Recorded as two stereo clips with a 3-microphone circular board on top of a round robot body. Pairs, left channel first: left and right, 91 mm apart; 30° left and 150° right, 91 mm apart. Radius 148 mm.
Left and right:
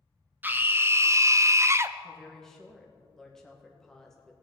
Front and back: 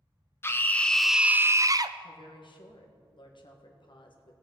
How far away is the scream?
About 0.8 m.